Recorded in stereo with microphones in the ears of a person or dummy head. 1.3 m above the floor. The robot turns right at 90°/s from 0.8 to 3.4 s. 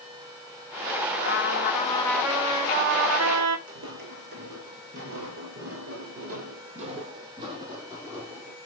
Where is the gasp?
I don't hear a gasp.